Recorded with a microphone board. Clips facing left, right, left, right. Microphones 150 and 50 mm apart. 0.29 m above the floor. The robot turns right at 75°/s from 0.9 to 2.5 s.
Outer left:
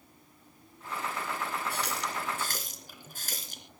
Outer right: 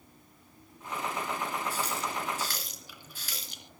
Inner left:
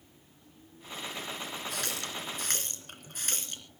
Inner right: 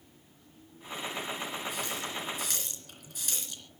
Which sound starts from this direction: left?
A running tap, at 1.7 s.